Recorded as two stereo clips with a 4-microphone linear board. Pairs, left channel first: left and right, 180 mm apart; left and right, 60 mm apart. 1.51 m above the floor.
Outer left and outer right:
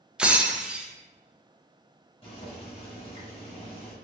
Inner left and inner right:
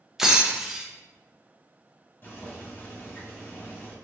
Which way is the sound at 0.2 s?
5° right (ahead or behind).